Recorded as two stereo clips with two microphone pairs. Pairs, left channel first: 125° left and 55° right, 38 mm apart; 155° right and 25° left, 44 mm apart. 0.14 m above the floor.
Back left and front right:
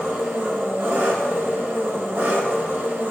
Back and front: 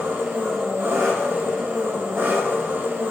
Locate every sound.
0.0 s an engine running: 15° right, 4.5 m